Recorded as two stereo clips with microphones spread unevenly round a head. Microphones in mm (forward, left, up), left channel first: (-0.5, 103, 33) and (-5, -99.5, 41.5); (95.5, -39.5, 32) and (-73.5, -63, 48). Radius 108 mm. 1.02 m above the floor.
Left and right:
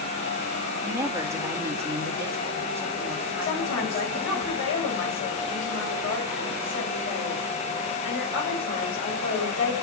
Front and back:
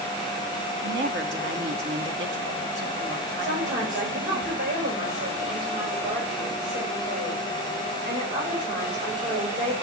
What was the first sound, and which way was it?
A woman speaking, 170° right.